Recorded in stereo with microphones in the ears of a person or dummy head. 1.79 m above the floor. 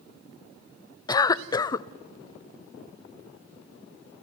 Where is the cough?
25° left (ahead or behind), 0.7 m.